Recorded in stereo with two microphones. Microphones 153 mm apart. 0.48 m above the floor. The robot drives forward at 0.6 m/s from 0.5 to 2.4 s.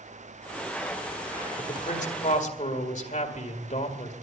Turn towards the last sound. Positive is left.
turn(degrees=55)  # may be behind; listen again after turning